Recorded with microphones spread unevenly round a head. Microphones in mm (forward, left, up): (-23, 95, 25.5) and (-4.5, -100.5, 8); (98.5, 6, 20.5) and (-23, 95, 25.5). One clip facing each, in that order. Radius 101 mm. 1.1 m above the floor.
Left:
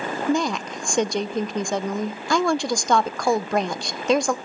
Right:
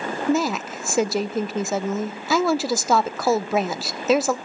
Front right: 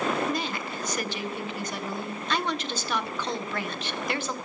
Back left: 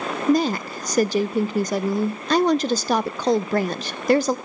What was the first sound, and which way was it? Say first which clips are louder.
A woman speaking: right 1 dB, back left 11 dB; 165° right.